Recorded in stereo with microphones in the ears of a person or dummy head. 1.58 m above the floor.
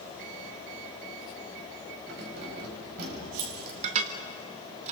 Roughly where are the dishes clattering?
Right.